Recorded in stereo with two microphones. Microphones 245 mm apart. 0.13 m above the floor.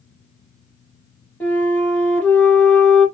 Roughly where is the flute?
Centre.